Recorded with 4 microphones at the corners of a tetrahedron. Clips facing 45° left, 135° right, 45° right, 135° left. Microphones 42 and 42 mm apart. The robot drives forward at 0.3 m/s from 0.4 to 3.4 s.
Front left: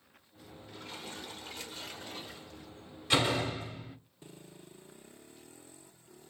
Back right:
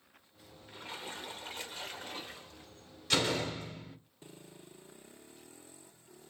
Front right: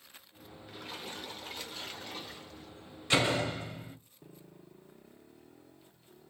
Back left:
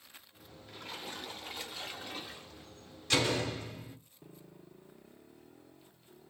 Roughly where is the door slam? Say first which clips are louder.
Front left 2 dB, front right 2 dB; ahead.